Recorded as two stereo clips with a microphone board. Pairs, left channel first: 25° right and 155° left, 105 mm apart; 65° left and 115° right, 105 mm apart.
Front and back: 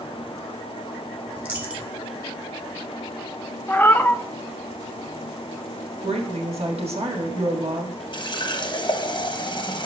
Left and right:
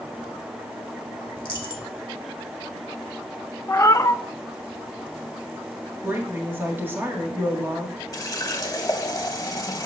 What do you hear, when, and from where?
1.4 s a dropped coin: 95° left, 1.3 m
3.7 s a cat meowing: 35° left, 0.5 m
6.0 s a woman speaking: straight behind, 1.6 m
8.1 s a running tap: 15° left, 0.8 m